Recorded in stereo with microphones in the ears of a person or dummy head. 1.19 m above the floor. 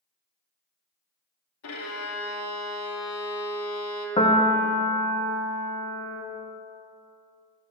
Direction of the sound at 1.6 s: 80° left.